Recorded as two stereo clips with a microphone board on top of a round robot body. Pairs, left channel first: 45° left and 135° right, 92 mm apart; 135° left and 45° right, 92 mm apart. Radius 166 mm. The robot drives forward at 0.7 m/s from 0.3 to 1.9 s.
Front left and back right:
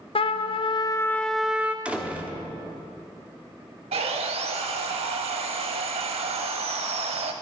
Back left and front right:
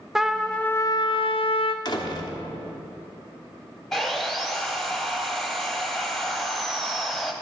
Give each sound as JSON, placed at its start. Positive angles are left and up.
{"t": 0.1, "sound": "a trumpet", "azimuth_deg": 40, "distance_m": 0.6}
{"t": 1.9, "sound": "a door slam", "azimuth_deg": 150, "distance_m": 1.1}
{"t": 3.9, "sound": "sawing", "azimuth_deg": -140, "distance_m": 0.5}